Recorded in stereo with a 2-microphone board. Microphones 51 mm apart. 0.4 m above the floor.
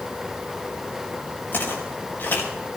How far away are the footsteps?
About 4.5 m.